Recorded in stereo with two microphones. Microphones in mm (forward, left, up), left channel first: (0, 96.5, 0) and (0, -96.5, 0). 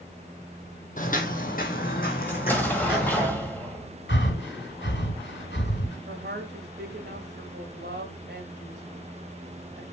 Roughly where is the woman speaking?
Right.